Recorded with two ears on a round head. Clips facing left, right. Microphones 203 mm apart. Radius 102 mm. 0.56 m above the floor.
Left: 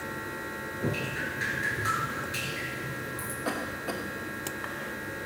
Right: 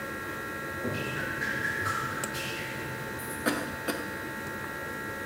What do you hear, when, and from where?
0.8 s dripping: 45° left (ahead or behind), 2.5 m
3.5 s a cough: 20° right (ahead or behind), 1.0 m